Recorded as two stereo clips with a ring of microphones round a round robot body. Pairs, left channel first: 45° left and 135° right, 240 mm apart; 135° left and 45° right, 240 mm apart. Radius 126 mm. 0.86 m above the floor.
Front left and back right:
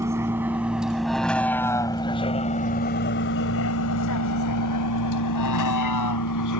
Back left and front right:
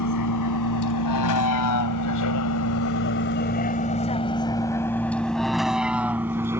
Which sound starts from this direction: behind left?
A vehicle, at 0.0 s.